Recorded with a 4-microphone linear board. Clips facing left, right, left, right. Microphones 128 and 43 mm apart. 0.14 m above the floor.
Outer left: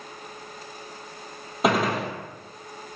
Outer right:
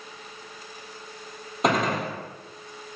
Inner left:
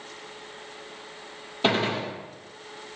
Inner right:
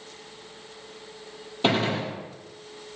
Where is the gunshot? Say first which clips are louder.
Outer left 1 dB, even; 5° left (ahead or behind), 0.9 m.